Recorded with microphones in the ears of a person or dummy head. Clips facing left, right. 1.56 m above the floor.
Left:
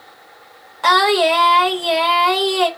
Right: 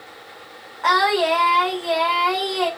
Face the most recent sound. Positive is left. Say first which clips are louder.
# left 4 dB
turn(degrees=50)  # may be behind; listen again after turning